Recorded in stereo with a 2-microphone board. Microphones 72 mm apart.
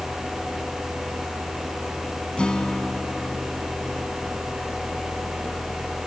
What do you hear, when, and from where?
2.4 s a guitar: 15° left (ahead or behind)